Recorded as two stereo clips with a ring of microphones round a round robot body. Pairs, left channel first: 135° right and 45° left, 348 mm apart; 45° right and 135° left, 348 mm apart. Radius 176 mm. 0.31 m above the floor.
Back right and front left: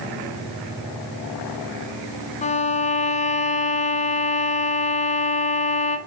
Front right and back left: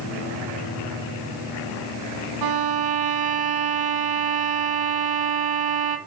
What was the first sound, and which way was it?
A violin, 155° left.